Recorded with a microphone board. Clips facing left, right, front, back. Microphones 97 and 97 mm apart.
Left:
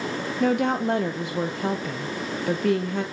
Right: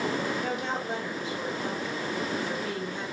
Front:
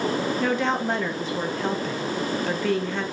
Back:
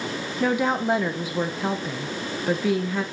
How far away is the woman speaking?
About 0.5 m.